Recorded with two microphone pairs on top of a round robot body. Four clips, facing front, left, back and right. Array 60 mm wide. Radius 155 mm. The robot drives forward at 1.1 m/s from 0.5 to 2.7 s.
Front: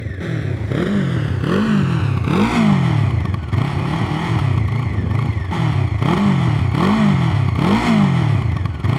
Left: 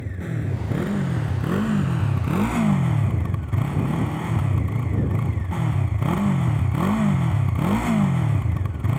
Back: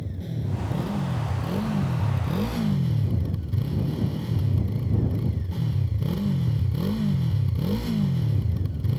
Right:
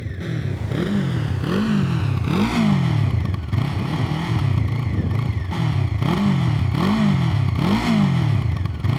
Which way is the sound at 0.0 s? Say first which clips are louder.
Right 2 dB, front 9 dB; straight ahead.